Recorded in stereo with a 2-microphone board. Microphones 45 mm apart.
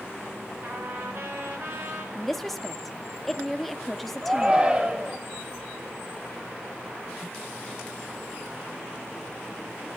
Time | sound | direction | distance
0.6 | a trumpet | 60° right (ahead or behind) | 3 m
2.1 | a woman speaking | 5° left (ahead or behind) | 0.7 m
4.2 | a shout | 20° right (ahead or behind) | 3.5 m